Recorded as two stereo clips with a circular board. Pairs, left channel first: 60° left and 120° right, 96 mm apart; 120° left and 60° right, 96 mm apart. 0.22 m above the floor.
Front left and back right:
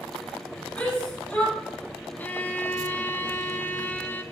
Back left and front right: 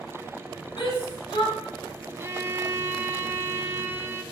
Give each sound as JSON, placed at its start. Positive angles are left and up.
{"t": 0.8, "sound": "a shout", "azimuth_deg": 135, "distance_m": 3.5}
{"t": 2.2, "sound": "a violin", "azimuth_deg": -5, "distance_m": 0.6}